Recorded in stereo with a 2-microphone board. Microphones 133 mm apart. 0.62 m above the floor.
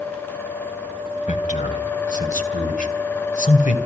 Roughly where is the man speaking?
Left.